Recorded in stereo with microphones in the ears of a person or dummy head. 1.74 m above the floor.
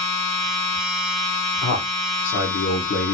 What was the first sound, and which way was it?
A machine running, 60° left (ahead or behind).